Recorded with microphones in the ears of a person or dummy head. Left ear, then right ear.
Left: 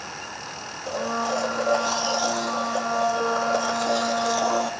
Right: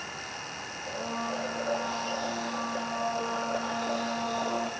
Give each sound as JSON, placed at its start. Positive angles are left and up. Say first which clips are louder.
{"t": 0.9, "sound": "a blender", "louder": "left 8 dB", "side_deg": 70, "distance_m": 1.5}